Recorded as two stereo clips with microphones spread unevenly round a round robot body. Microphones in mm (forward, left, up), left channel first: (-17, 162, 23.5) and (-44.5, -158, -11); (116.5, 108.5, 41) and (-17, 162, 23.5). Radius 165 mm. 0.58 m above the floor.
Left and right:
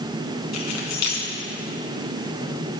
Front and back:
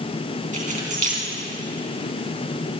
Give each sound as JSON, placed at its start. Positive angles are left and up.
{"t": 0.5, "sound": "keys jangling", "azimuth_deg": 125, "distance_m": 4.0}